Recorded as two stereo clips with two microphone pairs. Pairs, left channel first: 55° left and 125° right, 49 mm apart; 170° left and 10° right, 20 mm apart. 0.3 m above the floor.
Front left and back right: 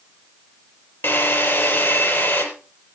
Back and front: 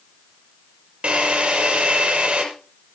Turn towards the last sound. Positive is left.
turn(degrees=20)